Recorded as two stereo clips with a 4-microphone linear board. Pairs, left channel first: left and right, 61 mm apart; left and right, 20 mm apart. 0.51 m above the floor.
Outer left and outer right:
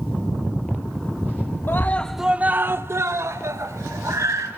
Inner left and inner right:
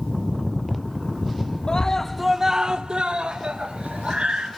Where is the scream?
40° left (ahead or behind), 0.8 m; by 4.5 s 55° right (ahead or behind), 3 m.